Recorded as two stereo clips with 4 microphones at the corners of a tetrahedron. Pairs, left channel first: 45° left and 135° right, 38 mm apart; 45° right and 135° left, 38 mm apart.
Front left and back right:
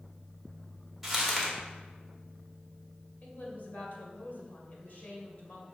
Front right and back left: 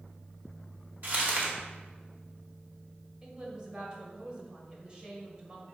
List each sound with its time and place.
1.0 s crumpling: 140° left, 1.8 m
3.2 s a woman speaking: 70° left, 1.9 m